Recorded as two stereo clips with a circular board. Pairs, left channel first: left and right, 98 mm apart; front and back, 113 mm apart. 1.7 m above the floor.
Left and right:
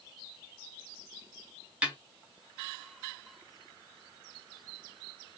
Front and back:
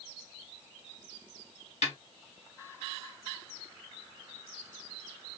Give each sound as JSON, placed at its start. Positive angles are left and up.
{"t": 1.8, "sound": "a snare drum", "azimuth_deg": -10, "distance_m": 1.4}